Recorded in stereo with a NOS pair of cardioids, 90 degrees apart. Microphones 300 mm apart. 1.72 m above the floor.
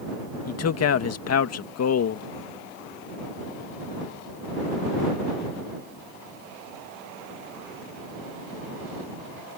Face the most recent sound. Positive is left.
turn(degrees=60)